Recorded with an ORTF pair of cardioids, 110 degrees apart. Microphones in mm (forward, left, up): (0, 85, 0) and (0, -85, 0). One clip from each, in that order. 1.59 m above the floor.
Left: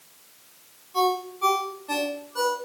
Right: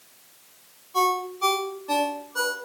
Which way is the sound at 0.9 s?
15° right.